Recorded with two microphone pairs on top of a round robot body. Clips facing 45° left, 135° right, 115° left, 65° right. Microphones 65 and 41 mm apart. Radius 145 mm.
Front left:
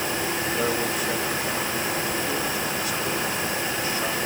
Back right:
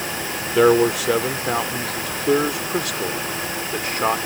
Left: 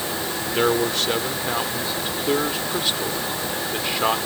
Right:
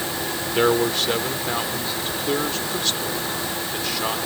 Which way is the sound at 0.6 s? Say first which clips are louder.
Back right 14 dB, right 1 dB; 150° right.